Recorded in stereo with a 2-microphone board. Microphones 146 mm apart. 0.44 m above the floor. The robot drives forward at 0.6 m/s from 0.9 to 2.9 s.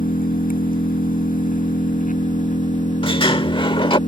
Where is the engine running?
75° left (ahead or behind); by 4.1 s 65° left (ahead or behind).